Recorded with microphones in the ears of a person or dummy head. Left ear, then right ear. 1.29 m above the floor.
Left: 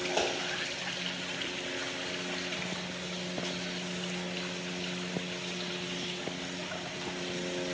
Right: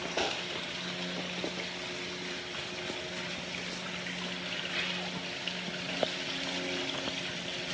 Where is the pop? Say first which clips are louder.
Left 1 dB; 55° left (ahead or behind), 2 m.